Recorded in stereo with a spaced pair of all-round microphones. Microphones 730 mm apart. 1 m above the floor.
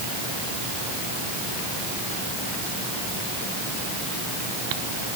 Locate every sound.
Only background noise.